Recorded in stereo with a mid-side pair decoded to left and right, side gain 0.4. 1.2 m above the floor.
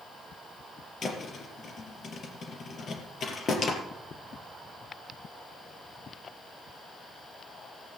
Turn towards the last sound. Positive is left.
turn(degrees=55)